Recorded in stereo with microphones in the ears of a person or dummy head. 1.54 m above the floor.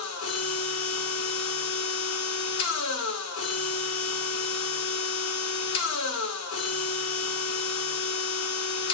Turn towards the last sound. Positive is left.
turn(degrees=80)